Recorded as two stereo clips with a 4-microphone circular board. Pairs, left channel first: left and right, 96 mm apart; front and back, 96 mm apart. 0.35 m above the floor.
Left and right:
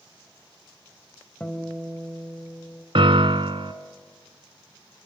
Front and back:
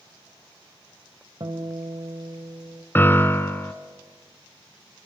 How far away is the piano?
About 1.1 m.